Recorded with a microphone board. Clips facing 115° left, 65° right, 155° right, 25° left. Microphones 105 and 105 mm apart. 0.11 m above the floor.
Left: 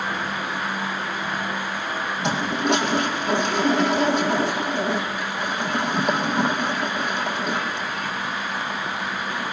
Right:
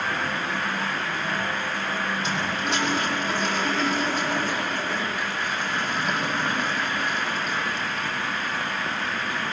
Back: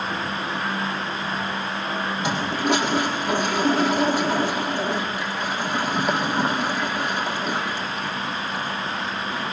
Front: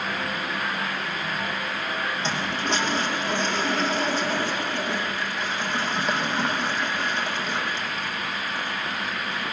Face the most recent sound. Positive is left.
turn(degrees=125)